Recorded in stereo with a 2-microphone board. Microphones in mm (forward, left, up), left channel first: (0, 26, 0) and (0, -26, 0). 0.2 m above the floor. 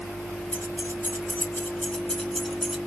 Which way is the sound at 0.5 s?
45° left (ahead or behind).